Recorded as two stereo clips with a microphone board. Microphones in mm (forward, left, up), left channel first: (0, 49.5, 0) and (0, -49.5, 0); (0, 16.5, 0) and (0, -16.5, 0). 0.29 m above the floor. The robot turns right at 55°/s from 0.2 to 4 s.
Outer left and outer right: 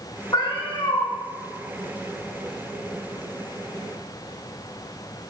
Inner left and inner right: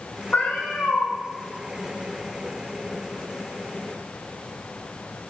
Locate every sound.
0.3 s a cat meowing: 45° left, 1.8 m; by 1.1 s 85° left, 1.8 m